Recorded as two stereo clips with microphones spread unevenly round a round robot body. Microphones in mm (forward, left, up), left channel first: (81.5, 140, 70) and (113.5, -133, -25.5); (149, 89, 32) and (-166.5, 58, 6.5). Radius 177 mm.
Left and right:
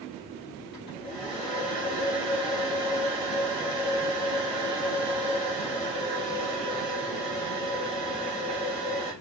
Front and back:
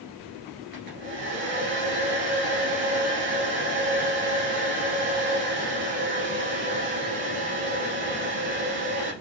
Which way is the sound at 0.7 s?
165° left.